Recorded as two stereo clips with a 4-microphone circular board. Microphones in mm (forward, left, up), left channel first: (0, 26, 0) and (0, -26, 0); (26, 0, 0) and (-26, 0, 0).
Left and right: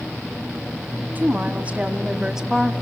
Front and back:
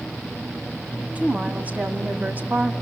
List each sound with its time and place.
1.1 s a woman speaking: 130° right, 2 m; by 2.7 s straight behind, 1.9 m